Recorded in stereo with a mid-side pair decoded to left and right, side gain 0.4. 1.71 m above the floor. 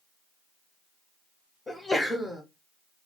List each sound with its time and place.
1.7 s a sneeze: 25° left, 0.9 m